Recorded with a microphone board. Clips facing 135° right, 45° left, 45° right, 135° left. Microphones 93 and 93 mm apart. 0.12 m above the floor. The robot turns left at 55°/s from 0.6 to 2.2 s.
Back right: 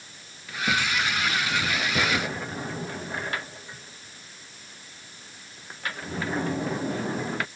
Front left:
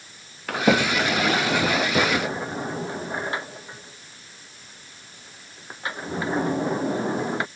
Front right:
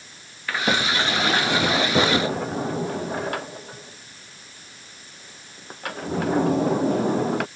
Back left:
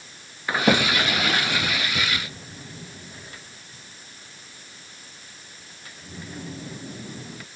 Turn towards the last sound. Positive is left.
turn(degrees=-20)